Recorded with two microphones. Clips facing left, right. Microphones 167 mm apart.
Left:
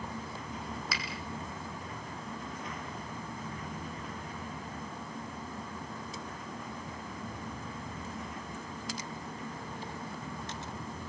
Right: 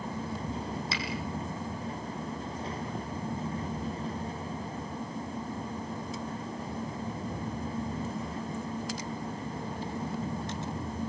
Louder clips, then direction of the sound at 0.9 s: Right 4 dB; 25° right (ahead or behind).